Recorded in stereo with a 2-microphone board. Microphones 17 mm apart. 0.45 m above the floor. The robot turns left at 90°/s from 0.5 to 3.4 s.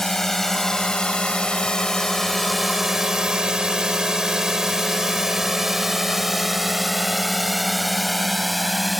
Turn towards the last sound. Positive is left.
turn(degrees=0)  # may be behind; listen again after turning